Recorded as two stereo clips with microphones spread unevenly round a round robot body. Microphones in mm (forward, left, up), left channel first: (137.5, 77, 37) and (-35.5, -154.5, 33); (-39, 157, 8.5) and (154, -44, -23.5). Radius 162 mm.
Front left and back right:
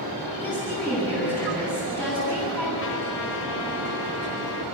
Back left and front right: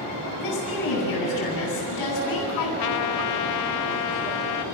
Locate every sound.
0.4 s a woman speaking: 140° left, 7 m
2.8 s a trumpet: 110° left, 0.5 m